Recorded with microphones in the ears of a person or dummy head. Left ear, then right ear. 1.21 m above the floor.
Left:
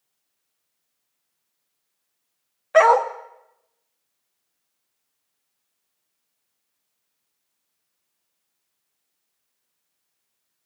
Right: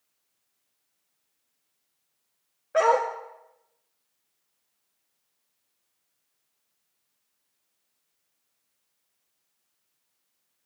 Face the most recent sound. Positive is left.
turn(degrees=20)  # may be behind; listen again after turning